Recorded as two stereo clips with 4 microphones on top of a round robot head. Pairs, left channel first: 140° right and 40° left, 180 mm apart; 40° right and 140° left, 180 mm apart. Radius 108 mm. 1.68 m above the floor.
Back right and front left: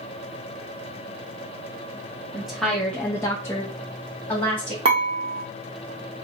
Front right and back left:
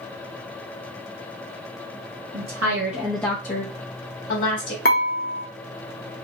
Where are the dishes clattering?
15° right, 0.8 m.